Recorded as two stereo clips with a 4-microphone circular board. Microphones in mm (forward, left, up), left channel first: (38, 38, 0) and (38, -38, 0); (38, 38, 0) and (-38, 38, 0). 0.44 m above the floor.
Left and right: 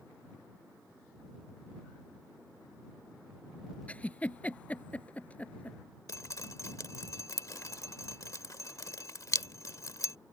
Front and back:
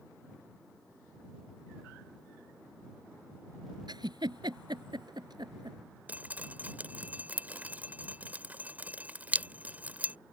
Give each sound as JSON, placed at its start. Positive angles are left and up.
{"t": 3.9, "sound": "a giggle", "azimuth_deg": 160}
{"t": 6.1, "sound": "dripping", "azimuth_deg": 115}